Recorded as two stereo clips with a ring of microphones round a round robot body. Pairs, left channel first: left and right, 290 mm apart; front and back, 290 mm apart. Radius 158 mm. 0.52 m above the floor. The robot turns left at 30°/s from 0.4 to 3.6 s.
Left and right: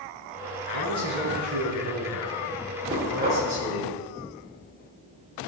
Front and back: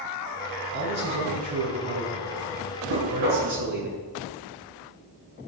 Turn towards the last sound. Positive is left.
turn(degrees=180)